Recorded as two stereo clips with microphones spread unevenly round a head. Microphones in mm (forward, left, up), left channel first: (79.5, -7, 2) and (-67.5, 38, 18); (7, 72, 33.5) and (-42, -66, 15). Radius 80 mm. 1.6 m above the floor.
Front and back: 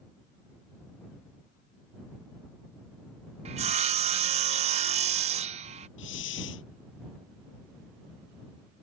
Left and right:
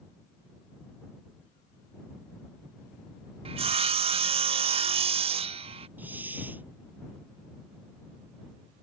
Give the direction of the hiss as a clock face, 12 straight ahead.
1 o'clock.